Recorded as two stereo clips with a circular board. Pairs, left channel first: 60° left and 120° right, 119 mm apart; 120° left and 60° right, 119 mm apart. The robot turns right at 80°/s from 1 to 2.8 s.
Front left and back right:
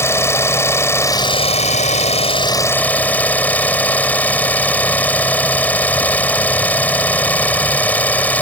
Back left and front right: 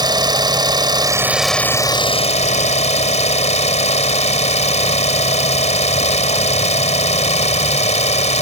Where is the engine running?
10° right; by 8.4 s 135° left.